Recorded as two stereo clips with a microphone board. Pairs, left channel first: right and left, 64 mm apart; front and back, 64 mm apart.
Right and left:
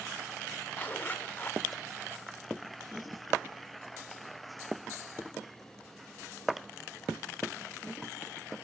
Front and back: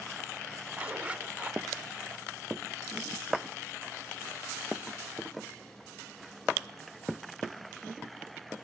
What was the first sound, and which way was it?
A zipper, 130° right.